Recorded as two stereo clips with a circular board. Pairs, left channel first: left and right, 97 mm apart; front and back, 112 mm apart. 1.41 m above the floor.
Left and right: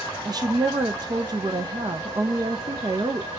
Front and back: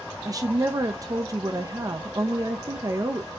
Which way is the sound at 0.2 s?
130° right.